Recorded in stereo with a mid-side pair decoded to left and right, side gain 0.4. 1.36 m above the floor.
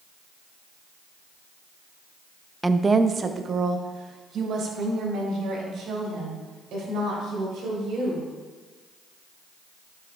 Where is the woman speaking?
15° right, 0.6 m; by 8.2 s 80° right, 5 m.